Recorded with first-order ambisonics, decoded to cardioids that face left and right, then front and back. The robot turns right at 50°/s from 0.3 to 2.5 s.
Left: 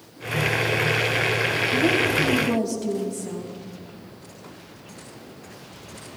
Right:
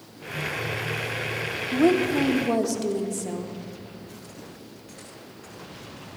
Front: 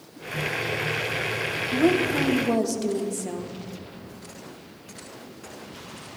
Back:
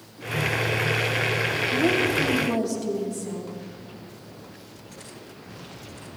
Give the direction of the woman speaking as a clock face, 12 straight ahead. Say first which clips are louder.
Right 2 dB, front 2 dB; 3 o'clock.